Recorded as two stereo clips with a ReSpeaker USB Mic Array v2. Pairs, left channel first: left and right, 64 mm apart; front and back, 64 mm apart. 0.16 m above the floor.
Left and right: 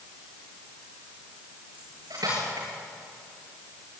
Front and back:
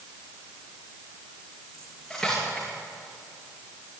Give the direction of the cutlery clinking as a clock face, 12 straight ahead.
3 o'clock.